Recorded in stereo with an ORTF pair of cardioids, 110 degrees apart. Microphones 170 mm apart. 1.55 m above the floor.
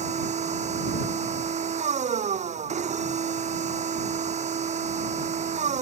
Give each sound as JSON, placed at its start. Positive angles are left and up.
{"t": 0.0, "sound": "a machine running", "azimuth_deg": -45}